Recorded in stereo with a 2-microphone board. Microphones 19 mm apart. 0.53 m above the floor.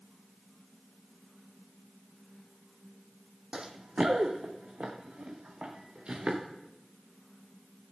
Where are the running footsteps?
60° right (ahead or behind), 1.1 m; by 6.4 s 70° right (ahead or behind), 3.5 m.